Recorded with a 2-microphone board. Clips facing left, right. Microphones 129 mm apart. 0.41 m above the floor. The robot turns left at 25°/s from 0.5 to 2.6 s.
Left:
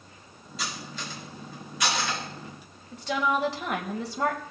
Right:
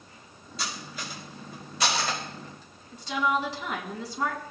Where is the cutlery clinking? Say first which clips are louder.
Even; centre (ahead or behind), 3.5 m; by 2.2 s 40° right (ahead or behind), 3.5 m.